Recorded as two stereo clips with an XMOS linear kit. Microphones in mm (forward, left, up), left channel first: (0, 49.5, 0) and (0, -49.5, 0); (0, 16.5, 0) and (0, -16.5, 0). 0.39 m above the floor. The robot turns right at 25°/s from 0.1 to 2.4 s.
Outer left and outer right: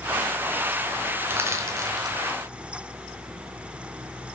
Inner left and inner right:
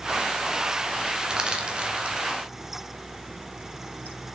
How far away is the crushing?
About 0.8 m.